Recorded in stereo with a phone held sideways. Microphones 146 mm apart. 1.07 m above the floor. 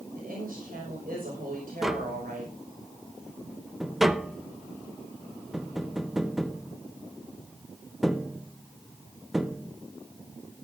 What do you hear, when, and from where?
0.1 s a woman speaking: 85° right, 6 m
1.8 s tapping: centre (ahead or behind), 0.6 m